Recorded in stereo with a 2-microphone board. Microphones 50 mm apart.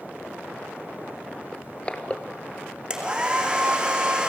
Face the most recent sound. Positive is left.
turn(degrees=-20)  # may be behind; listen again after turning